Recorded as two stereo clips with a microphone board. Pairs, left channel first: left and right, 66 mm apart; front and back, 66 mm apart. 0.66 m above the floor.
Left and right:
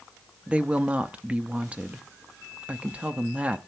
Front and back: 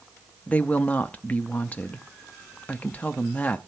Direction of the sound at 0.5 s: 40° right.